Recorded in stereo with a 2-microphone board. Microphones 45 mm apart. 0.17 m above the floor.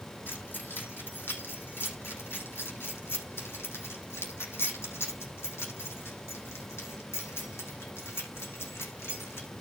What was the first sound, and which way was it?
Keys jangling, 55° left (ahead or behind).